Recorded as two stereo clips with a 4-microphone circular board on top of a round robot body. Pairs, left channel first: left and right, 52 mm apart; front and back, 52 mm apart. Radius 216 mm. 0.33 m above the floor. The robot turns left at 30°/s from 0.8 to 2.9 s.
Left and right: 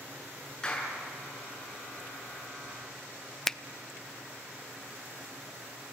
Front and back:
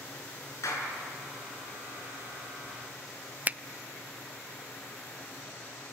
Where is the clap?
20° left, 6.5 m; by 0.9 s 15° left, 6.5 m.